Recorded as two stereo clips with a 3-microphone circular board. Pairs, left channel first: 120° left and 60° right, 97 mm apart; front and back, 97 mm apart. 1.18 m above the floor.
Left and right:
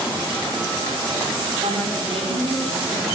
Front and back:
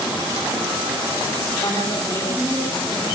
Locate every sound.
1.6 s a woman speaking: 65° right, 8 m